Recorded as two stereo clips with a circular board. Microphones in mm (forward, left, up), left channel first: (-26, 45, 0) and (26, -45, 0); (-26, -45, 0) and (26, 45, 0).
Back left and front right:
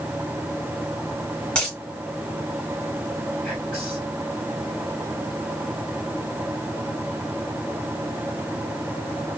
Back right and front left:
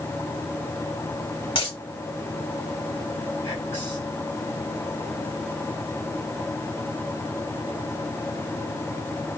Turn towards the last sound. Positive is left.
turn(degrees=-160)